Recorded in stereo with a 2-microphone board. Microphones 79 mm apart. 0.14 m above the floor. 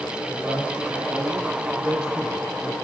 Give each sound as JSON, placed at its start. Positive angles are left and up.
{"t": 0.3, "sound": "a man speaking", "side_deg": -25, "distance_m": 4.0}